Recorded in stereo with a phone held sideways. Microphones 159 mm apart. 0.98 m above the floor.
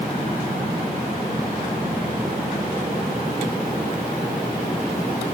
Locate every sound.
Only background noise.